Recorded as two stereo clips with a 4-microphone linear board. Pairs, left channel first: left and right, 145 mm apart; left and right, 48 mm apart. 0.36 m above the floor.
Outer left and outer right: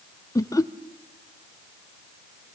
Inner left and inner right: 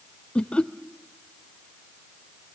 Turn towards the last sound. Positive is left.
turn(degrees=25)  # may be behind; listen again after turning